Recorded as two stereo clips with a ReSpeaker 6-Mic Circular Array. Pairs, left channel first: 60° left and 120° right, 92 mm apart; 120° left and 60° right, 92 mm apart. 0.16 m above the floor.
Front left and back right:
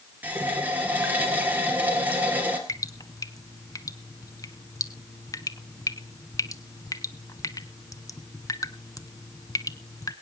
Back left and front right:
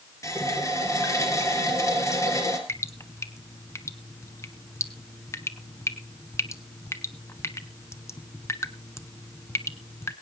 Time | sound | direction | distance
0.2 | a running tap | 170° left | 2.5 m
2.7 | dripping | 80° left | 0.8 m